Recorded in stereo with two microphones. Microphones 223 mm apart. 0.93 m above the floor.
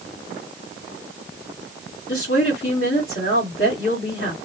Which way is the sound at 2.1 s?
60° left (ahead or behind).